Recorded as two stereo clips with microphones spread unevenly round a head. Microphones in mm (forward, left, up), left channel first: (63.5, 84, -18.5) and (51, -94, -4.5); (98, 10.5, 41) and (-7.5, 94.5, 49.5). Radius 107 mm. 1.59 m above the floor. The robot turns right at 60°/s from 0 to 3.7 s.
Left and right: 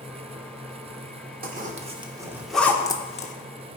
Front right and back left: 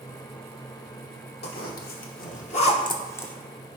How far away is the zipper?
About 1.0 m.